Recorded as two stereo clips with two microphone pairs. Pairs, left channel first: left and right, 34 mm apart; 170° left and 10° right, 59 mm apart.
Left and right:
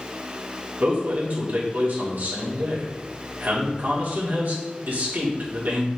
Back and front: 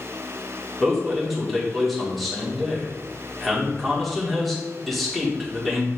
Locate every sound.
0.8 s a man speaking: 100° right, 2.5 m